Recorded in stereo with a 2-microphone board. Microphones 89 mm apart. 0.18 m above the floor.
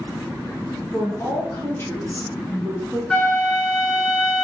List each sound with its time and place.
0.9 s a woman speaking: 40° left (ahead or behind), 1.6 m; by 3.0 s 20° left (ahead or behind), 1.5 m
3.1 s a flute: 10° left (ahead or behind), 0.6 m